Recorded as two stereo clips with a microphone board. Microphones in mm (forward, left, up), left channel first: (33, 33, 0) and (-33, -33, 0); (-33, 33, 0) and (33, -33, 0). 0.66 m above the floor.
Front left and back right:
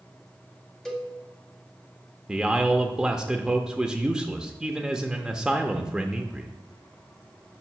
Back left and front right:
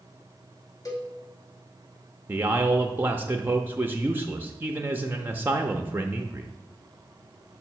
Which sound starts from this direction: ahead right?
A man speaking, at 2.3 s.